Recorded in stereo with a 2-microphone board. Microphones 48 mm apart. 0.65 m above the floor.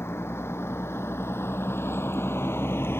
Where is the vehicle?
65° left (ahead or behind); by 3.0 s 60° left (ahead or behind).